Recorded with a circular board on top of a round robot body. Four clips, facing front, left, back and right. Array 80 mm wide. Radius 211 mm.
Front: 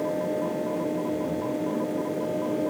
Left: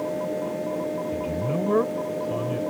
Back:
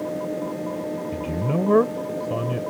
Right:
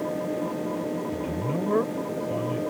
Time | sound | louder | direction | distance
1.1 | a man speaking | left 2 dB, back 2 dB | 170° left | ?